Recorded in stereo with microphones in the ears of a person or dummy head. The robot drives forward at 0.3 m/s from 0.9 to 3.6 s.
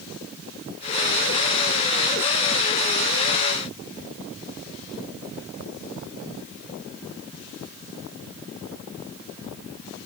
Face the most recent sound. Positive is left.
No sound to turn to.